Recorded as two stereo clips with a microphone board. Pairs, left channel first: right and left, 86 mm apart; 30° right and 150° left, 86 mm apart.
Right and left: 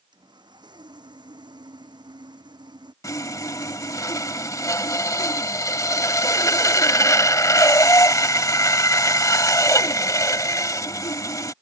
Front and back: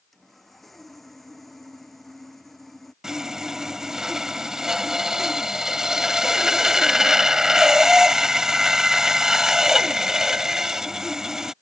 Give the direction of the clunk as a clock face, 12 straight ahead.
I don't hear a clunk.